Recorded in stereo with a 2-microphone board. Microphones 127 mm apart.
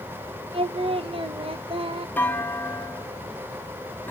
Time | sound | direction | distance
0.5 | singing | 45° right (ahead or behind) | 0.6 m
2.2 | a clunk | 15° left (ahead or behind) | 0.5 m